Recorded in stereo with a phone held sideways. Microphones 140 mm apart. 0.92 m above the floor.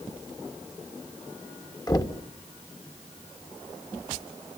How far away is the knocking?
About 1.3 m.